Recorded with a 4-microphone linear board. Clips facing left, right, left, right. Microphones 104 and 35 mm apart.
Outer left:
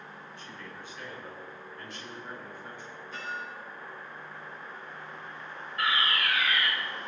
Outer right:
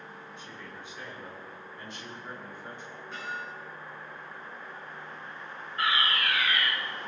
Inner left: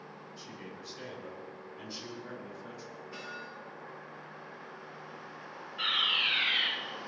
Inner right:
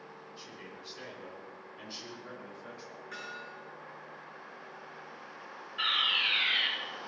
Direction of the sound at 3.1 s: 80° right.